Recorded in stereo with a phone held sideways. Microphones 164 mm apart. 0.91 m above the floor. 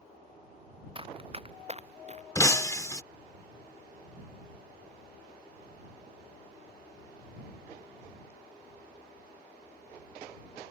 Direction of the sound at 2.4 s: 20° left (ahead or behind).